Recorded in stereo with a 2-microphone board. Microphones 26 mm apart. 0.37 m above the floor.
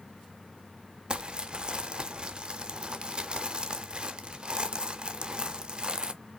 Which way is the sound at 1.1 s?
40° right (ahead or behind).